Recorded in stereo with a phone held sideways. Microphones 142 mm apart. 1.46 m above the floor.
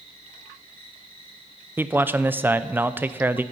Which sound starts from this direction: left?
An insect, at 0.0 s.